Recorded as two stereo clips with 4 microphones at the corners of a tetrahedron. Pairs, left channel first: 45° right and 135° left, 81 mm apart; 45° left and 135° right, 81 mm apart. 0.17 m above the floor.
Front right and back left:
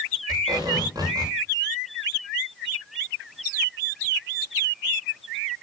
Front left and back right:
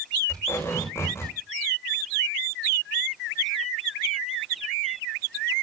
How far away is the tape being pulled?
About 8 m.